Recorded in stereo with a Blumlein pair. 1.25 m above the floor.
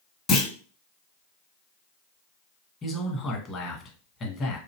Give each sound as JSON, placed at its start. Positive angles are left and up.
{"t": 0.3, "sound": "a clunk", "azimuth_deg": 25, "distance_m": 1.3}
{"t": 2.8, "sound": "a man speaking", "azimuth_deg": 20, "distance_m": 1.3}